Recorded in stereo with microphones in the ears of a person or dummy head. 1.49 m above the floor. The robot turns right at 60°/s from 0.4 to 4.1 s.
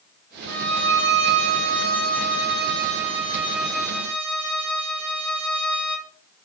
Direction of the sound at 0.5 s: 165° left.